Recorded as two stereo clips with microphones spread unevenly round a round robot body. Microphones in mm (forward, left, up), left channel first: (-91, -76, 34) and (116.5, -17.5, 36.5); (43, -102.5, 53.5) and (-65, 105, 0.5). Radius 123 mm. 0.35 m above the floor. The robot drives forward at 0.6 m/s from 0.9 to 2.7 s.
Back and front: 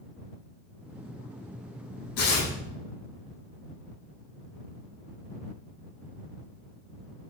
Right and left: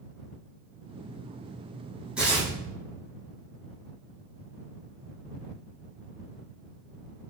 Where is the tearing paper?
155° right, 8 m.